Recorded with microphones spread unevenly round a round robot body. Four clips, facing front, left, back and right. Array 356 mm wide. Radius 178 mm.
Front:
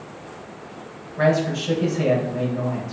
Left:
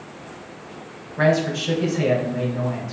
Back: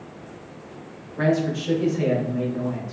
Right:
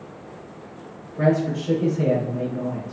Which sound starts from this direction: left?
A man speaking, at 1.2 s.